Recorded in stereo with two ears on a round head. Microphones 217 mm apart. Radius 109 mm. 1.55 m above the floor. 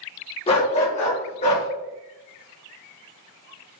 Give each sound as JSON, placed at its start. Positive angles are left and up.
{"t": 0.5, "sound": "a dog barking", "side_deg": 25, "distance_m": 1.0}